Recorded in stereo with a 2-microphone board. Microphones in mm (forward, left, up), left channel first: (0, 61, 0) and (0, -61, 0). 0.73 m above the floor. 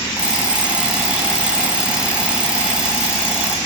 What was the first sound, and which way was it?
An alarm clock, 10° right (ahead or behind).